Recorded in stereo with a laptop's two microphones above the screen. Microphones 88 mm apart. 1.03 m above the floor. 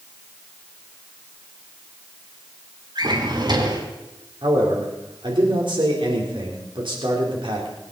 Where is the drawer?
55° right (ahead or behind), 2.5 m.